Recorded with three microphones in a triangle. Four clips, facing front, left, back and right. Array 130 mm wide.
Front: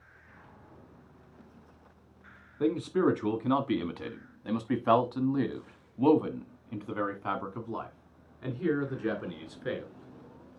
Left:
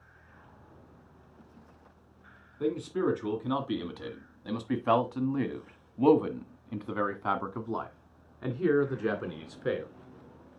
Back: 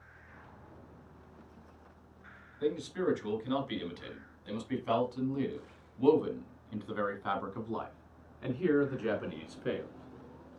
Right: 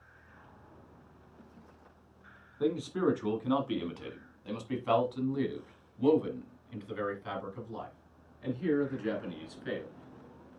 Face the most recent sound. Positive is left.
turn(degrees=105)